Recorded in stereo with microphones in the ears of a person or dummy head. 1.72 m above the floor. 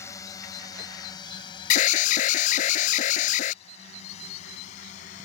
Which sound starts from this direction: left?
An alarm, at 1.7 s.